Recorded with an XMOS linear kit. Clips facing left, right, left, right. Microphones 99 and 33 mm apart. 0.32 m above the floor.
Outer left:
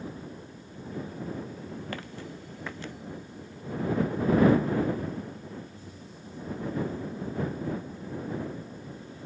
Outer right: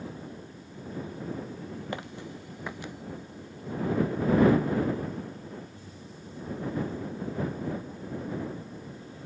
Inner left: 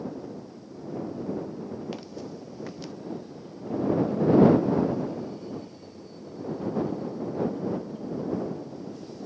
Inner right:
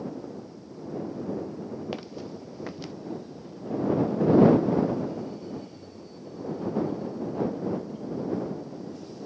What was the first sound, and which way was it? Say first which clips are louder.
Footsteps: outer right 1 dB, inner right 1 dB; 20° right (ahead or behind).